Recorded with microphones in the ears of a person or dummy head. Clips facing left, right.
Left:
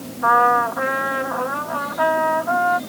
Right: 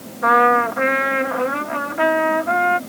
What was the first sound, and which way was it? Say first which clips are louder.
A trumpet: right 2 dB; 30° right (ahead or behind).